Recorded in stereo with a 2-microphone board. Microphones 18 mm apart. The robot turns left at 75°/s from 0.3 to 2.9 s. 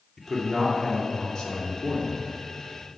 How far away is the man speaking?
About 2 m.